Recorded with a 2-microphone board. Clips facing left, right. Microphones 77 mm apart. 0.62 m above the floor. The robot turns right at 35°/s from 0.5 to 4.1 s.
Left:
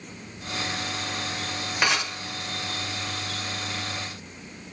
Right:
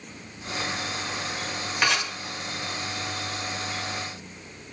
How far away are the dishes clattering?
About 1.3 m.